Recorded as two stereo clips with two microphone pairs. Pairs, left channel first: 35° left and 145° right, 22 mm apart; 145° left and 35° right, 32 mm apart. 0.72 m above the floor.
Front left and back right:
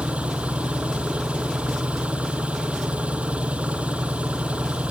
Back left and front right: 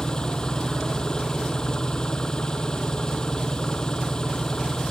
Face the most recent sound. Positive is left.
turn(degrees=-145)